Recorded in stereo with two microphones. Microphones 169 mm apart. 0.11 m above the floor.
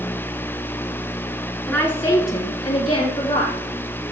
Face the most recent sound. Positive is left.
turn(degrees=30)  # may be behind; listen again after turning